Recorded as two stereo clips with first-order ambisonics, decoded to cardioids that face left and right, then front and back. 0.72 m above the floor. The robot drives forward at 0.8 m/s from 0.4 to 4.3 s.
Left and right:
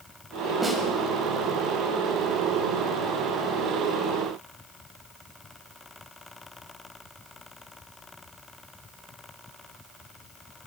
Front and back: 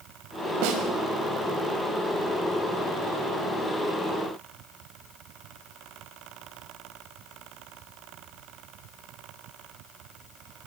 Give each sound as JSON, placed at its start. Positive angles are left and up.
{"t": 0.6, "sound": "a snare drum", "azimuth_deg": -170, "distance_m": 4.5}